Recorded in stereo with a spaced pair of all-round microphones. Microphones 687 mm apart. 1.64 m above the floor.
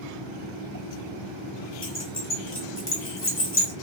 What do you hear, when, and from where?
1.8 s keys jangling: 15° left (ahead or behind), 1.2 m